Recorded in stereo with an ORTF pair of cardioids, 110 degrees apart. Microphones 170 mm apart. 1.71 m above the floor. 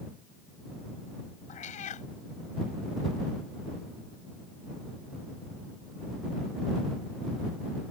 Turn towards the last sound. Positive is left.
turn(degrees=55)